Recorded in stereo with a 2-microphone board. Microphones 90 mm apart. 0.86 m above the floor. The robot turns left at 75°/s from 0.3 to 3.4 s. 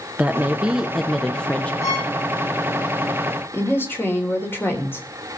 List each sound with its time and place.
0.2 s a woman speaking: 20° right (ahead or behind), 0.9 m; by 1.7 s 20° left (ahead or behind), 0.9 m
1.8 s a violin: 35° left (ahead or behind), 9 m; by 2.1 s 55° left (ahead or behind), 9 m
3.5 s a woman speaking: 30° left (ahead or behind), 3.5 m